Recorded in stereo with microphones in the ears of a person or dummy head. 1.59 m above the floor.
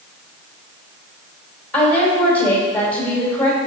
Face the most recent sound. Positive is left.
turn(degrees=10)  # may be behind; listen again after turning